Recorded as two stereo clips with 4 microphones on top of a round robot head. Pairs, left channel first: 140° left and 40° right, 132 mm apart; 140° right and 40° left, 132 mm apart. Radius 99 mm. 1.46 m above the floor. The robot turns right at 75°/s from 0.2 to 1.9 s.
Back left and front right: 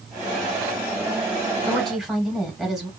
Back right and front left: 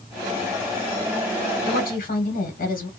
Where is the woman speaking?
145° right, 1.6 m; by 2.9 s 125° right, 1.6 m.